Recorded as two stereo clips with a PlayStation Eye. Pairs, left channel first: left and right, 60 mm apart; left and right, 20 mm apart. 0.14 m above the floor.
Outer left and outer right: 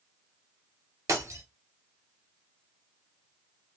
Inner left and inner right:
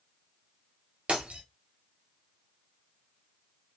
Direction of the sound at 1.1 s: 55° right (ahead or behind).